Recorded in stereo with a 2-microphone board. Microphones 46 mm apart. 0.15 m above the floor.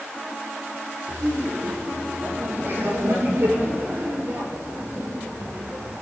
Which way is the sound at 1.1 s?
65° right (ahead or behind).